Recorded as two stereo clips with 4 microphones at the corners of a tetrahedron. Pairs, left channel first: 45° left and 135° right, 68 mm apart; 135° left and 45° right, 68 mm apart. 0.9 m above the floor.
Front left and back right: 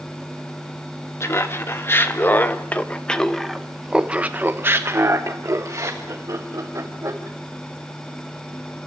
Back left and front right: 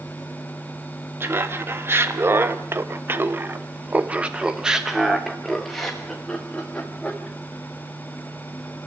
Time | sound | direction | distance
1.2 | laughter | 5° left | 1.7 m